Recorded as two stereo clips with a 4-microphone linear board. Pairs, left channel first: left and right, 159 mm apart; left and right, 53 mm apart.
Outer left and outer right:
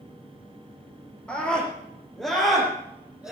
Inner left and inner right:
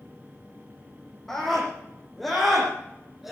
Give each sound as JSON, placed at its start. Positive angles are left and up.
{"t": 1.3, "sound": "a scream", "side_deg": 5, "distance_m": 6.5}